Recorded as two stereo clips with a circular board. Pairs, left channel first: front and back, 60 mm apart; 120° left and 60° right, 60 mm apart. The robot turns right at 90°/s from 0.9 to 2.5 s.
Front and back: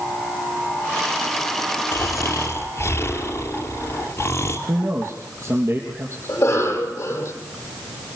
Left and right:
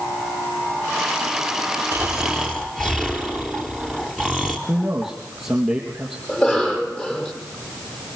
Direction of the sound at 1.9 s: 10° right.